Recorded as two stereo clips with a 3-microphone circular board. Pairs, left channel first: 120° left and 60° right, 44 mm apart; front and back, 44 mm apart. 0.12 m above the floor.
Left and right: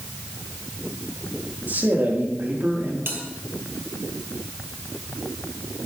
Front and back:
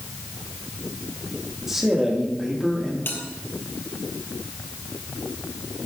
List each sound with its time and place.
1.7 s a man speaking: 100° right, 4 m; by 3.0 s 85° right, 4 m
3.1 s a bell: 30° right, 2.5 m